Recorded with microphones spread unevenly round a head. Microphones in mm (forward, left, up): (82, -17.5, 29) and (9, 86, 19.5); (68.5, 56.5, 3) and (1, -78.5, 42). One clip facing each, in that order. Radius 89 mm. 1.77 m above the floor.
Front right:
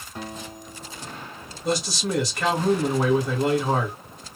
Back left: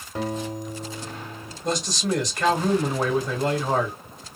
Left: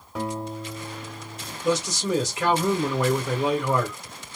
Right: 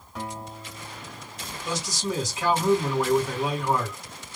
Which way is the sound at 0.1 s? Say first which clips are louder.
Back left 8 dB, left 6 dB; 110° left.